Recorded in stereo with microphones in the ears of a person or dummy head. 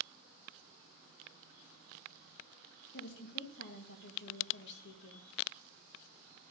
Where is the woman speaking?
65° left (ahead or behind), 1.7 m.